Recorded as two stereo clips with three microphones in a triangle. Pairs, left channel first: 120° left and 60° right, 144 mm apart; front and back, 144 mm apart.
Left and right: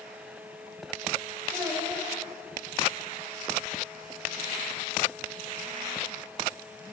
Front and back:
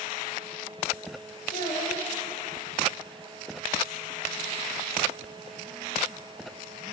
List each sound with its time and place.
1.5 s a child speaking: 15° left, 3 m